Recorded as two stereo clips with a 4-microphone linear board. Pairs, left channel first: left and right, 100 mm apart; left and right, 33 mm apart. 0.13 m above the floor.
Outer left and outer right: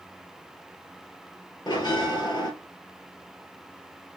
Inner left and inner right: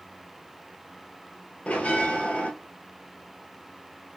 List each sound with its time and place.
1.7 s a bell: 50° left (ahead or behind), 0.8 m